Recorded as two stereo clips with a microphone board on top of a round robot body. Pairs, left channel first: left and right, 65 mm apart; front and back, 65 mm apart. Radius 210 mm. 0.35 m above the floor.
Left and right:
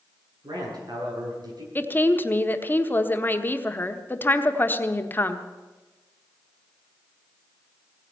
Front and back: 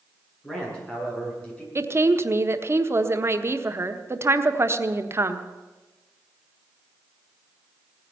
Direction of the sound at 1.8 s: 145° left.